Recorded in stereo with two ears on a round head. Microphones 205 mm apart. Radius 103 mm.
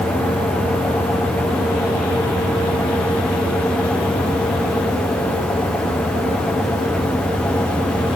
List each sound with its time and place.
Only background noise.